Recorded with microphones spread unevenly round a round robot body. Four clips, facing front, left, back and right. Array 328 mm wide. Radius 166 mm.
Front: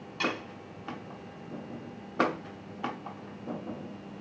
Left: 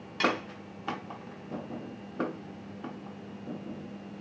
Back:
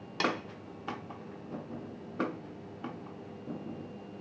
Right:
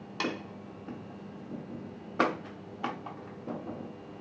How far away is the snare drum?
About 0.6 m.